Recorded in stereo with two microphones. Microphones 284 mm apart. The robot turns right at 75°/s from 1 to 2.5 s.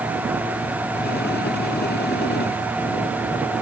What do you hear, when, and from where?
Only background noise.